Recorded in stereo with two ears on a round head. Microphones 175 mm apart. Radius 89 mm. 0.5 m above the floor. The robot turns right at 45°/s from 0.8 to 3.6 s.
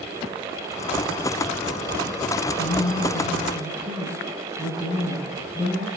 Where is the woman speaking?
140° left, 4.5 m; by 5.9 s 175° right, 4.5 m.